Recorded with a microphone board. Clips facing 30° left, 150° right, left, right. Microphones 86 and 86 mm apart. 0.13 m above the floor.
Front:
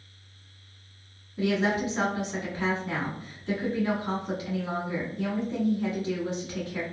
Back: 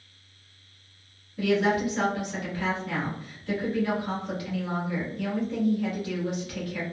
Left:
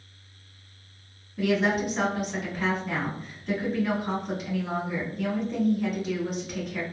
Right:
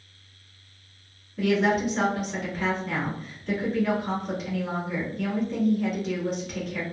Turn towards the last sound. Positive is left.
turn(degrees=10)